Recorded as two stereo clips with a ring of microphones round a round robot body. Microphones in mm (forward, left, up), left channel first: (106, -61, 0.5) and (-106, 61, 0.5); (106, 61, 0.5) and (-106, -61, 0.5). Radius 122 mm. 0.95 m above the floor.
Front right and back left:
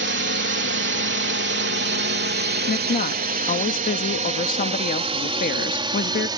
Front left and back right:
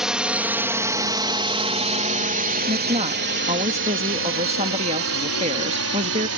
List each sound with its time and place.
0.0 s a drone: 125° left; by 6.4 s 140° right
2.7 s a woman speaking: 85° right